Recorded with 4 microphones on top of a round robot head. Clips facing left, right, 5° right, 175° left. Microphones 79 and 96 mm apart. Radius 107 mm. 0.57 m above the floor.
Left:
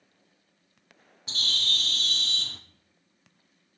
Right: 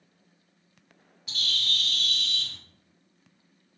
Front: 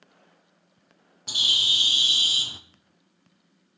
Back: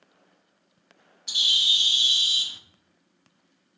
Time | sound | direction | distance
1.3 | a bird | 35° left | 0.8 m